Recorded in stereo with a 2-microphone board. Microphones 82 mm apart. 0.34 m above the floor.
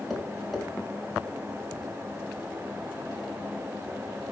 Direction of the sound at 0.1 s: Centre (ahead or behind).